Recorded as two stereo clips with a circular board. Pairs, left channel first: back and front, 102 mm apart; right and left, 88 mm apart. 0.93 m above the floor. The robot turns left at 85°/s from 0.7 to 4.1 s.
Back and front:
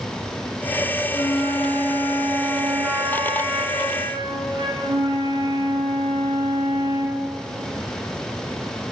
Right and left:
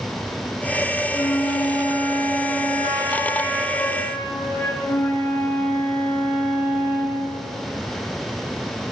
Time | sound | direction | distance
1.1 | a flute | 135° right | 1.9 m